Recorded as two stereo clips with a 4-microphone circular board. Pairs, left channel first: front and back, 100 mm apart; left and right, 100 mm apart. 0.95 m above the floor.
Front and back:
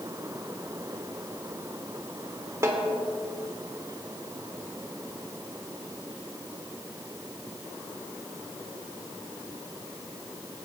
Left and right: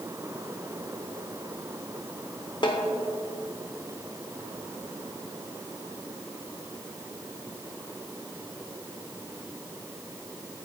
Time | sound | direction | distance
2.6 | a snare drum | 120° left | 1.2 m